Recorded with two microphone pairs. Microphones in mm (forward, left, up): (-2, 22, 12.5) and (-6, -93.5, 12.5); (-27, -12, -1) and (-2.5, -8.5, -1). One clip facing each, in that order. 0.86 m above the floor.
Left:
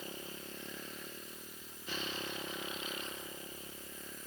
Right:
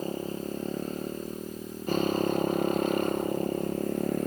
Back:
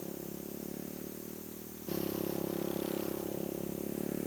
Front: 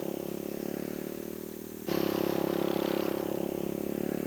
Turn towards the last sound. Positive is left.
turn(degrees=-65)